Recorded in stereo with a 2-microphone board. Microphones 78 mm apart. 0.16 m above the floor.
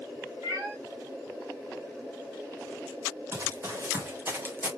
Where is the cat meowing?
35° right (ahead or behind), 3.5 m.